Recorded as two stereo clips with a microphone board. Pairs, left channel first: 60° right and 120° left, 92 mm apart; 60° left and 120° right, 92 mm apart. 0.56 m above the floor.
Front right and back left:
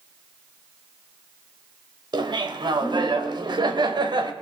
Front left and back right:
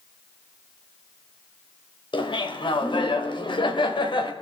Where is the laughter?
85° left, 2.5 m.